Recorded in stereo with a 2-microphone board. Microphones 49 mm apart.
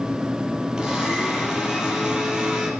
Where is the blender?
15° right (ahead or behind), 4 m.